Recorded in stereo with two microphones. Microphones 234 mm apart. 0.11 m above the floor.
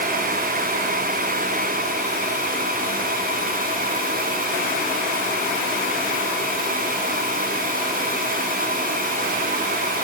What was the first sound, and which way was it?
Only background noise.